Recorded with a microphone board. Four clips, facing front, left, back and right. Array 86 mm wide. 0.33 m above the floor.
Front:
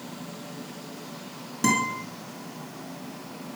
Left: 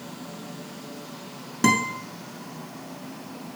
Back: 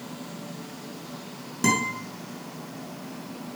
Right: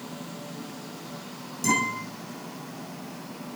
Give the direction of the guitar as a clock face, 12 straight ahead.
9 o'clock.